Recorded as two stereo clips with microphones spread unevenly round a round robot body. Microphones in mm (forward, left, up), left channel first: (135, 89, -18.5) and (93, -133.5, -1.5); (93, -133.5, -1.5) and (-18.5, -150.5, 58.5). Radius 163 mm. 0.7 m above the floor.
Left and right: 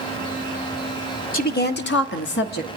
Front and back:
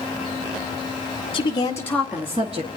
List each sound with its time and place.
1.3 s a woman speaking: 35° left, 1.8 m; by 2.7 s 130° left, 1.3 m